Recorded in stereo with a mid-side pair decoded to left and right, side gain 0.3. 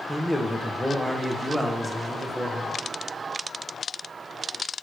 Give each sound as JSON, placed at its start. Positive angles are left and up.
{"t": 0.1, "sound": "a man speaking", "azimuth_deg": 5, "distance_m": 1.3}